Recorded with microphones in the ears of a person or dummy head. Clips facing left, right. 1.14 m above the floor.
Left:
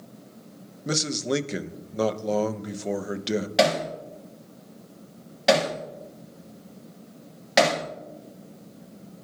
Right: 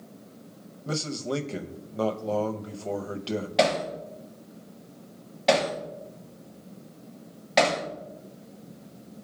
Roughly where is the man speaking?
Left.